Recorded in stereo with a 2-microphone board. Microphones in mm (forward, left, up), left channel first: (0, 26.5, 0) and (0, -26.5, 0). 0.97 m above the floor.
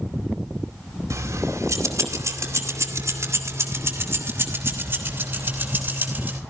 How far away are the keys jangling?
About 2.5 m.